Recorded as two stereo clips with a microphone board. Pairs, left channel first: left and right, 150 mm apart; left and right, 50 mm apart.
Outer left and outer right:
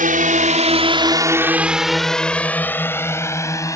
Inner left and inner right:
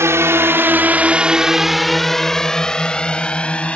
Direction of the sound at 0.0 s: 65° right (ahead or behind).